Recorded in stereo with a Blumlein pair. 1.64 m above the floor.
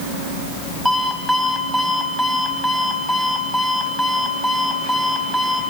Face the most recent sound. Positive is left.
turn(degrees=5)